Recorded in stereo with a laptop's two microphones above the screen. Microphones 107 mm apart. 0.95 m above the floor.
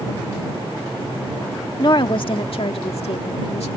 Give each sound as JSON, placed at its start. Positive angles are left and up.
{"t": 1.8, "sound": "a woman speaking", "side_deg": 45}